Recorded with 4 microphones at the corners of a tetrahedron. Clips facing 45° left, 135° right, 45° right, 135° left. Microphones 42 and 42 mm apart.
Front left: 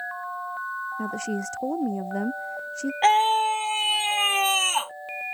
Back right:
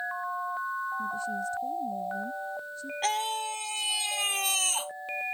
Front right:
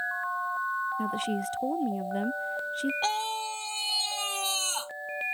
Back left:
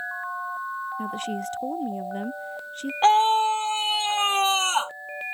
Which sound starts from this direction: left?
A scream, at 3.0 s.